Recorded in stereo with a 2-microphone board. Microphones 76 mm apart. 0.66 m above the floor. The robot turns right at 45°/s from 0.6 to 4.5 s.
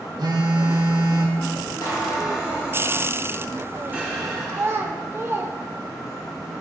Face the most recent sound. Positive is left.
turn(degrees=-35)  # may be behind; listen again after turning